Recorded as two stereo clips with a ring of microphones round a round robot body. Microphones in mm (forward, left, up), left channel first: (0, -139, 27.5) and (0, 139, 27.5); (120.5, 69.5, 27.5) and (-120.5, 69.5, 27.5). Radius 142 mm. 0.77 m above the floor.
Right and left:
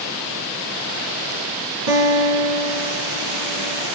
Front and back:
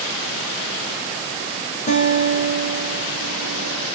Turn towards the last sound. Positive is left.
turn(degrees=60)